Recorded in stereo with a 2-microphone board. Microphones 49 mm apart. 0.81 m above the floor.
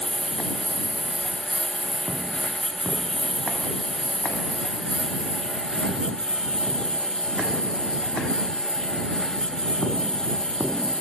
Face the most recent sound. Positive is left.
turn(degrees=20)  # may be behind; listen again after turning